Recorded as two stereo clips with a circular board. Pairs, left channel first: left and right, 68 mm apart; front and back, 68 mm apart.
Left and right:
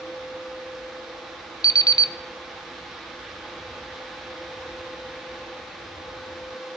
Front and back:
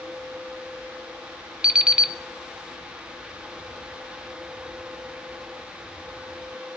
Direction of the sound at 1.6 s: 105° left.